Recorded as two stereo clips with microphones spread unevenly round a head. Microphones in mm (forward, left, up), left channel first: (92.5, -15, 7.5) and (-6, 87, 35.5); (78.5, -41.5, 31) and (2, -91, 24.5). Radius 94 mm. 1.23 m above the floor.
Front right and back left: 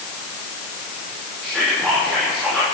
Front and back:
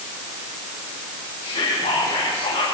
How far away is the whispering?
About 3 m.